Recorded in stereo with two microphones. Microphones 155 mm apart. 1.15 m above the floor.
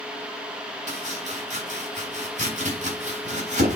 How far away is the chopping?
About 4 m.